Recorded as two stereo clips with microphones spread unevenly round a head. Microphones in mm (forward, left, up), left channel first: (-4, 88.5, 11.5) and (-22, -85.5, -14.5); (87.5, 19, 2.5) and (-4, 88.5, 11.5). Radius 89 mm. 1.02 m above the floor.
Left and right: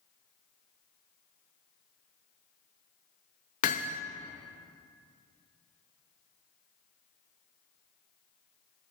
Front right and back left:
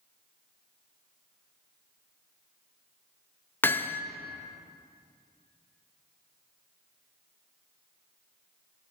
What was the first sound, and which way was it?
Hammering, 35° left.